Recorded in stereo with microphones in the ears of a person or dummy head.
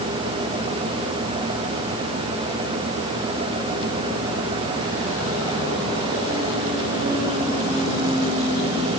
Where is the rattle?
No rattle in this recording.